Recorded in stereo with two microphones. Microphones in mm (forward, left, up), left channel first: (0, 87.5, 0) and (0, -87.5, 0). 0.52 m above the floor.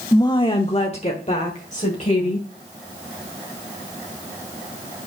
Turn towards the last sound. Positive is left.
turn(degrees=50)  # may be behind; listen again after turning